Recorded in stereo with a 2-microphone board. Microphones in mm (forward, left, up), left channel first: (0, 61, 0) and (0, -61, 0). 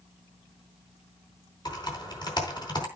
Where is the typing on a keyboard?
35° left (ahead or behind), 4.5 m.